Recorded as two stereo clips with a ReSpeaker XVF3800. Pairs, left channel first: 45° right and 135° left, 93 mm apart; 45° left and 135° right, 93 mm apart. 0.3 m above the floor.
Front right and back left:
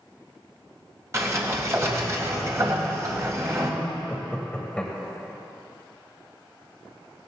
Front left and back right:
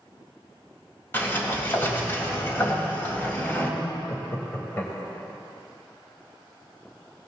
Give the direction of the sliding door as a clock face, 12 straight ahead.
9 o'clock.